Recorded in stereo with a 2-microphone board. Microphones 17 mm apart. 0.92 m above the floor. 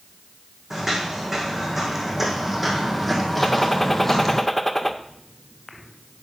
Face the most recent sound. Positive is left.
turn(degrees=15)  # may be behind; listen again after turning